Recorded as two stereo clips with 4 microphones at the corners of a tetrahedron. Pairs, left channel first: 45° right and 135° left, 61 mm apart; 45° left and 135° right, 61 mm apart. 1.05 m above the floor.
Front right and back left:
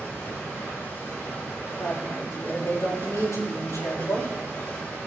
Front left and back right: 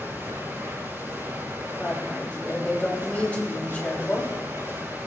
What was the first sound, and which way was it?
Running water, 85° right.